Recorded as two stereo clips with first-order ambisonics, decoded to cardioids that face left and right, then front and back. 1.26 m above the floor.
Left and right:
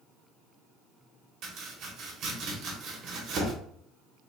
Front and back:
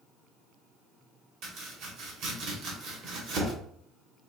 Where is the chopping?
140° right, 1.2 m.